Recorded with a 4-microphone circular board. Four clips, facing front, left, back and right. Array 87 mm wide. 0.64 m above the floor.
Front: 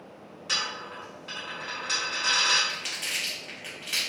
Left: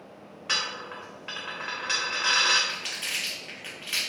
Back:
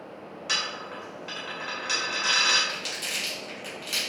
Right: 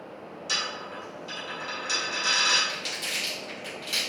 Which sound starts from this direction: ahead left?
Crumpling, at 2.7 s.